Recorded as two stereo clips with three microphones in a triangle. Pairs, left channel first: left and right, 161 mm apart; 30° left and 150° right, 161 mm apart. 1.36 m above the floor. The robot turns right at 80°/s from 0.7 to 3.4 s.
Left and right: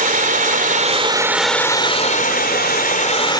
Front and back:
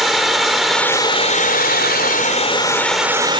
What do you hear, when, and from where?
0.0 s running water: 60° right; by 3.4 s 155° left